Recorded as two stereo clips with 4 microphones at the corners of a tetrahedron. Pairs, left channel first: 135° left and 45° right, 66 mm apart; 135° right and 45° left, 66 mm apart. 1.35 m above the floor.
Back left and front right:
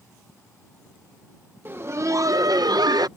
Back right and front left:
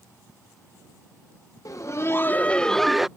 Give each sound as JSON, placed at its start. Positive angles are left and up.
{"t": 1.6, "sound": "laughter", "azimuth_deg": -100}